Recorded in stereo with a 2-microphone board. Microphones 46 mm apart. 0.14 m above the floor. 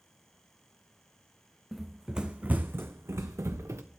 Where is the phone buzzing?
No phone buzzing in this recording.